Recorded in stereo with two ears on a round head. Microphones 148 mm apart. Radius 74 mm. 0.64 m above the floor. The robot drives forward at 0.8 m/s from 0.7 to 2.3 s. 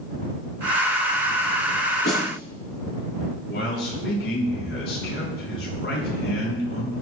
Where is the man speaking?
70° left (ahead or behind), 7.5 m.